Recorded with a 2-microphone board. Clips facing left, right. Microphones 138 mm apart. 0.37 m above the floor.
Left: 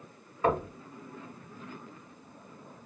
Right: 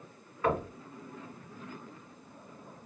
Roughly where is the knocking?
Left.